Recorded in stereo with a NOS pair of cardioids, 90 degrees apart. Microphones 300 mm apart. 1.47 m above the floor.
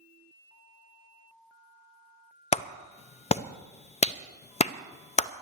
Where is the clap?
20° left, 0.5 m.